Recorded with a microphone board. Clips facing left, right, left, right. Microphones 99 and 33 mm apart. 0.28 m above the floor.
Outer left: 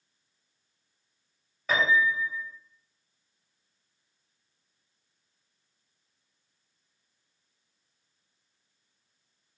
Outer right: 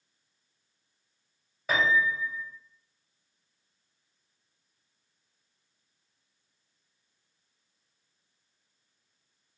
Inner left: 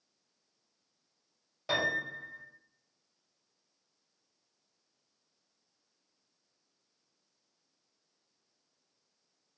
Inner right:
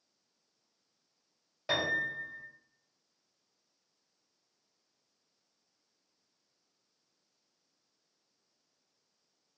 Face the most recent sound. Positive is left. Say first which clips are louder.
# outer left 1 dB, even
turn(degrees=-5)  # may be behind; listen again after turning